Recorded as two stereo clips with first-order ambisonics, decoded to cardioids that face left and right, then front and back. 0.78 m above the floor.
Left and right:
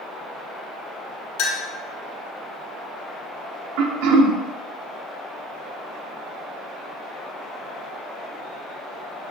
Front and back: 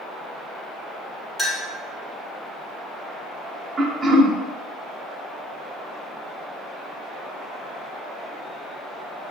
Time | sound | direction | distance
1.4 | a clink | 90° left | 1.3 m
3.8 | throat clearing | 100° right | 0.7 m